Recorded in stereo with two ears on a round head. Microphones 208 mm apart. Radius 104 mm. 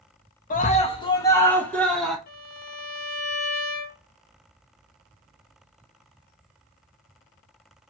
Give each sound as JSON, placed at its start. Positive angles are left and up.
{"t": 0.5, "sound": "a scream", "side_deg": 35, "distance_m": 1.5}
{"t": 2.3, "sound": "a violin", "side_deg": 40, "distance_m": 1.9}